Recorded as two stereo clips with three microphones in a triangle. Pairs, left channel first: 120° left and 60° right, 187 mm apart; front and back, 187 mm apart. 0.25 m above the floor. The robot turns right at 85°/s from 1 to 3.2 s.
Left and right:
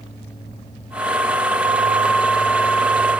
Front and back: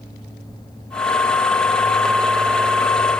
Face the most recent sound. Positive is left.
No sound to turn to.